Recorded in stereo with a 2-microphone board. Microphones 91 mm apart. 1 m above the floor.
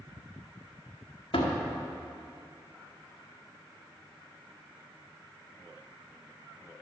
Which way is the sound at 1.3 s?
85° left.